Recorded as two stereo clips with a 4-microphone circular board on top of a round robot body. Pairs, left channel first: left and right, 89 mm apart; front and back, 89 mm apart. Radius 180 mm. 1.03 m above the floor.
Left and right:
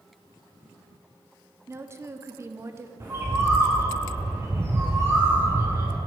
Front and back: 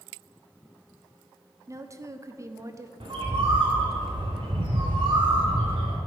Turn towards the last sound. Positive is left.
turn(degrees=-150)